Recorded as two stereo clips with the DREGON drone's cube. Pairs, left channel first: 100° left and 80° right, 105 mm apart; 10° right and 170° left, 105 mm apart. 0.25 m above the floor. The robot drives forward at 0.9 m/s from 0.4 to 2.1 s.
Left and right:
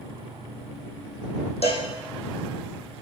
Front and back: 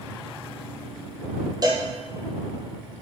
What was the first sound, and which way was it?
A cowbell, 120° left.